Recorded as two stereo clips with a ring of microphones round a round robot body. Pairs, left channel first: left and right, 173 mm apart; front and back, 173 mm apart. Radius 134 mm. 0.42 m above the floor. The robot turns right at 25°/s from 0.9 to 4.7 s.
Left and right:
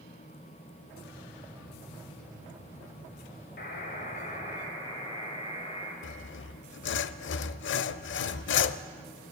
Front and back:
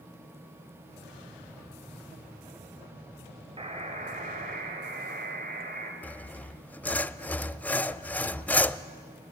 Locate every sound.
3.6 s a buzzer: 125° left, 2.5 m; by 5.9 s 150° left, 2.5 m
6.0 s sawing: 80° left, 0.5 m